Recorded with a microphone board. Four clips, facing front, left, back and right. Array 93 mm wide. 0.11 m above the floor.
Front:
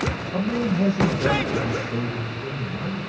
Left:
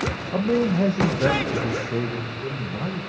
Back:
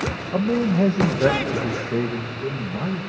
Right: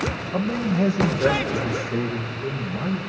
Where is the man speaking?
140° left, 3.5 m; by 3.0 s 160° left, 6.5 m.